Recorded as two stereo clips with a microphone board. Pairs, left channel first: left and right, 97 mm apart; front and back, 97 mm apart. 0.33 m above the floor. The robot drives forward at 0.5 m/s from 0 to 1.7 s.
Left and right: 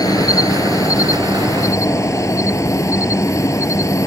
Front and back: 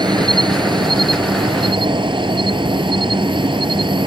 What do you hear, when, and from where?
0.0 s an insect: 140° left; by 4.1 s 150° left